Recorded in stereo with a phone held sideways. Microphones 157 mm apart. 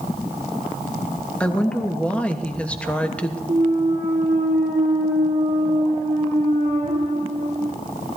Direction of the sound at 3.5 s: 45° right (ahead or behind).